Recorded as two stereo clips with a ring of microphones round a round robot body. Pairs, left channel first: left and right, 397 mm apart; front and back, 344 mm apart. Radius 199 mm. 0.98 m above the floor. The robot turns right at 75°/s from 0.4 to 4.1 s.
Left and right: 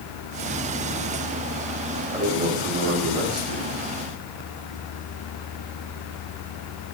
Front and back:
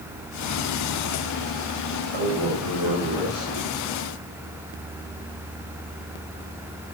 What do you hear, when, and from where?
2.1 s a man speaking: 170° right, 6 m; by 3.6 s 55° right, 6 m